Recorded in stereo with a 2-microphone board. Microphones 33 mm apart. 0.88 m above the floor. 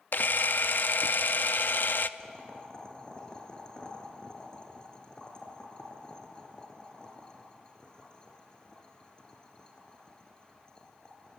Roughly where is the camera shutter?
Left.